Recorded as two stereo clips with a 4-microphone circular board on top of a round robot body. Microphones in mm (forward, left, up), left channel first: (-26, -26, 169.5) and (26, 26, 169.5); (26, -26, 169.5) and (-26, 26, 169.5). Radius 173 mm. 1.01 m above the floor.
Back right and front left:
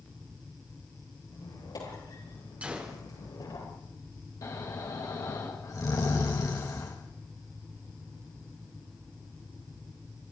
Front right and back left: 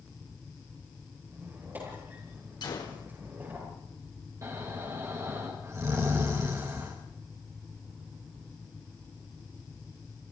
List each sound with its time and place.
1.3 s a squeak: 165° right, 8.5 m
2.6 s a gunshot: 30° right, 3.5 m
4.4 s snoring: straight behind, 4 m